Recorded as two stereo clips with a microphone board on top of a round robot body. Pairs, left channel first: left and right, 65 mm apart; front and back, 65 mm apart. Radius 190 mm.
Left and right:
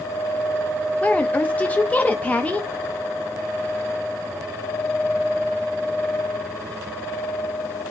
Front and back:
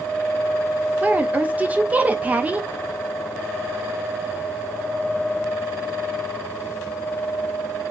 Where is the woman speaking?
135° left, 0.8 m.